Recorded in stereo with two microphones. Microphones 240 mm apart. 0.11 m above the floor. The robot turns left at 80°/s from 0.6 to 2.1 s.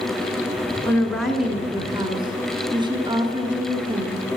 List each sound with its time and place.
0.8 s a woman speaking: 10° left (ahead or behind), 1.2 m; by 4.2 s 20° right (ahead or behind), 1.2 m